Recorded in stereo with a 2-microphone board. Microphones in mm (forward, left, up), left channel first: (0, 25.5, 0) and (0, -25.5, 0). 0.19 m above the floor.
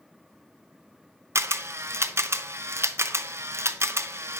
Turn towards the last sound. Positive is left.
turn(degrees=-55)  # may be behind; listen again after turning